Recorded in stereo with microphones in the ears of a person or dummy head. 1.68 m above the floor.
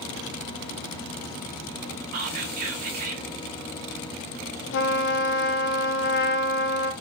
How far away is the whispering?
About 1.1 m.